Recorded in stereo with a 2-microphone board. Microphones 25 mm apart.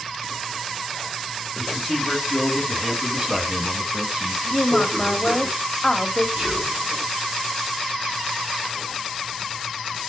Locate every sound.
1.6 s a man speaking: centre (ahead or behind), 2.5 m; by 5.5 s 55° right (ahead or behind), 3 m
4.5 s a woman speaking: 20° left (ahead or behind), 0.9 m
6.4 s whispering: 60° right (ahead or behind), 4 m